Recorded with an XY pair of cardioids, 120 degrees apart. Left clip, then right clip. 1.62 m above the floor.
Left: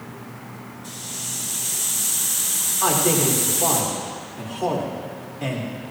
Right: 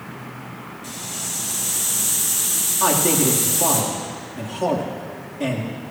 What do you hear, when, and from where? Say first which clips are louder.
0.8 s a hiss: right 2 dB; 60° right, 6.5 m
2.8 s a man speaking: right 1 dB; 55° right, 4 m